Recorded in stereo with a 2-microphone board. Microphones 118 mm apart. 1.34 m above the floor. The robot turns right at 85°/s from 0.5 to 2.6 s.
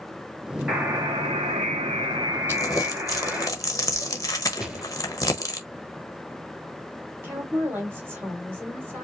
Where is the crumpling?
20° left (ahead or behind), 1.0 m; by 5.6 s 30° left (ahead or behind), 1.0 m.